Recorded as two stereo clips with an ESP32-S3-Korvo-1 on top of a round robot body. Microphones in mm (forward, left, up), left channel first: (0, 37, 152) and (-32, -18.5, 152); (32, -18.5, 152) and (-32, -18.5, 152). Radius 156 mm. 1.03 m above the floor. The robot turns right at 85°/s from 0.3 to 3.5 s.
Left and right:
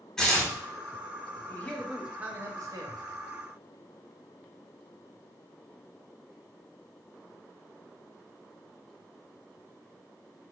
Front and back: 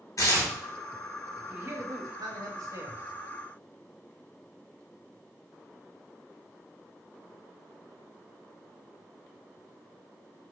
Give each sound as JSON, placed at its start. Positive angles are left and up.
{"t": 0.2, "sound": "tearing paper", "azimuth_deg": -20, "distance_m": 1.6}
{"t": 1.5, "sound": "a man speaking", "azimuth_deg": 115, "distance_m": 1.0}